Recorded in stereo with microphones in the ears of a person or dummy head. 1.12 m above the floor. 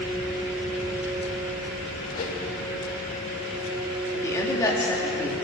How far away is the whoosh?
About 1.9 m.